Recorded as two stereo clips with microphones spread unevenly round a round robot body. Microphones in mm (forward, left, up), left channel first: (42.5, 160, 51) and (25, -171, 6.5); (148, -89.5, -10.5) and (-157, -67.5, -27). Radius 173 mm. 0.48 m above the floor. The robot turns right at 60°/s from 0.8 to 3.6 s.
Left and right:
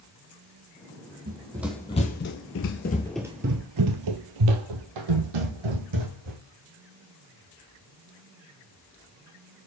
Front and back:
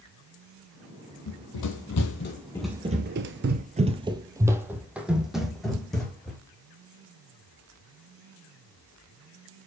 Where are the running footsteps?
30° right, 1.1 m; by 6.4 s 90° right, 1.8 m.